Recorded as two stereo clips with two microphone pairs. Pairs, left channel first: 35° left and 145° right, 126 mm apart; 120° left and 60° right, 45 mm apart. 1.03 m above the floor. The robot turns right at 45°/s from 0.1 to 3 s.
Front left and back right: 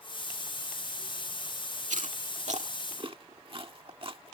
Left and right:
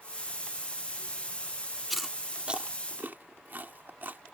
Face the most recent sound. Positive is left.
turn(degrees=-100)